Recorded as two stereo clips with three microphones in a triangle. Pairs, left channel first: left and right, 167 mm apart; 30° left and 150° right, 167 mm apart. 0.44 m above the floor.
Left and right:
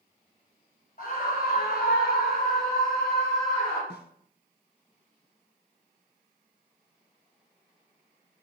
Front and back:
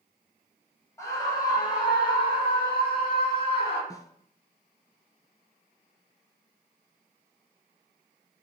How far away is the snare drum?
About 1.0 m.